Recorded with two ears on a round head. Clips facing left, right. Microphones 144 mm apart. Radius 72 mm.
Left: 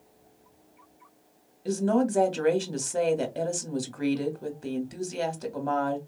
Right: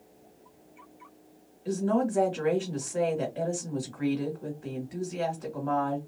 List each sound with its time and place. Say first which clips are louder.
1.6 s a woman speaking: left 2 dB; 50° left (ahead or behind), 1.2 m